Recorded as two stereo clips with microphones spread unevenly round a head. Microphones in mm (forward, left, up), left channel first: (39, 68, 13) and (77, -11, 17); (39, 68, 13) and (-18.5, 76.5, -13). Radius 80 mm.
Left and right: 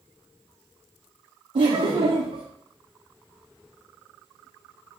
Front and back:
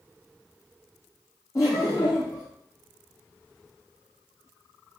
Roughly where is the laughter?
Ahead right.